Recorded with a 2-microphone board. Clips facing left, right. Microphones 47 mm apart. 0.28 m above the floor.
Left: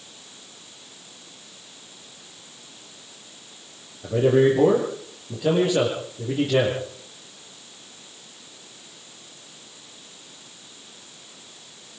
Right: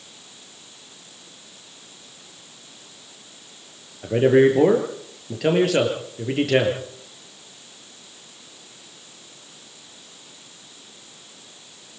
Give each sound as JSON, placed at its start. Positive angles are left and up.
{"t": 4.0, "sound": "a man speaking", "side_deg": -75, "distance_m": 7.5}